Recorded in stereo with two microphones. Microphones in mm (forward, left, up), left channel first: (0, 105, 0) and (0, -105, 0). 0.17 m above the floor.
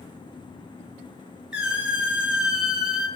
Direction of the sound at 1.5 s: 5° right (ahead or behind).